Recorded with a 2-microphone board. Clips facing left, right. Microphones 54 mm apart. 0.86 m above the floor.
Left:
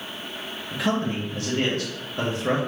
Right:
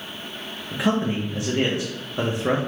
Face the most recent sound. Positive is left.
turn(degrees=-20)  # may be behind; listen again after turning